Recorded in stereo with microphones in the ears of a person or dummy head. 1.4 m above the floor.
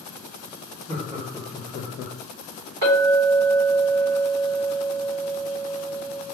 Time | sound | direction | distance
0.9 | laughter | 30° right (ahead or behind) | 1.0 m
2.8 | a clink | 50° right (ahead or behind) | 1.0 m